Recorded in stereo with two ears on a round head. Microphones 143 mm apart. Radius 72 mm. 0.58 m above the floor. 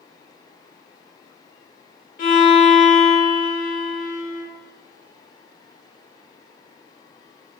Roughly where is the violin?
Left.